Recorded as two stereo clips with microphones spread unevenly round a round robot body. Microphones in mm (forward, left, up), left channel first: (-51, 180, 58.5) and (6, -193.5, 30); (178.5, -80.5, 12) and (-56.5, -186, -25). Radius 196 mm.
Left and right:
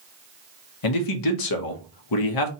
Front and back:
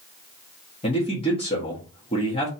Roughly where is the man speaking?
Left.